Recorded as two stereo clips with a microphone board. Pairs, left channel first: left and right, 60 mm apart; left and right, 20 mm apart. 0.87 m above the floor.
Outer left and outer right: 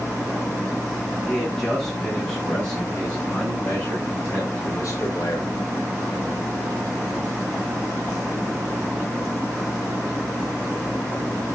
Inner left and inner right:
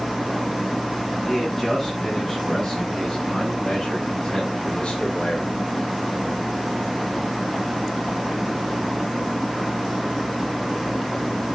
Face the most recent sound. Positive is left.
turn(degrees=60)  # may be behind; listen again after turning